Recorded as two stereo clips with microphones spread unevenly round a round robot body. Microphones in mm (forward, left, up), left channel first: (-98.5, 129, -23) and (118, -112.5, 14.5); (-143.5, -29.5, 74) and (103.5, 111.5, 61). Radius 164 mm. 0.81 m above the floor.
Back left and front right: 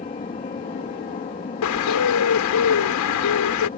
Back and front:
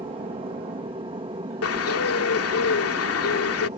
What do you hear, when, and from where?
0.0 s an aircraft: 80° left
1.6 s a bird: 170° left